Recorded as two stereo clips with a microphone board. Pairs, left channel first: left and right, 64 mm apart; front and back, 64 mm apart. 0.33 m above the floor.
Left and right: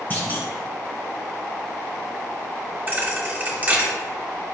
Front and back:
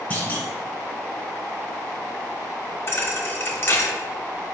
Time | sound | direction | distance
0.1 | a clunk | 55° left | 1.5 m
2.9 | a thud | 40° right | 0.8 m